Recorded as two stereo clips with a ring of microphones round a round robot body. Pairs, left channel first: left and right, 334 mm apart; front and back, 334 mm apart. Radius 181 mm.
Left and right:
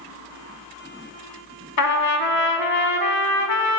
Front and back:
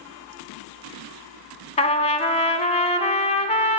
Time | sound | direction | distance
1.8 | a trumpet | 70° left | 0.7 m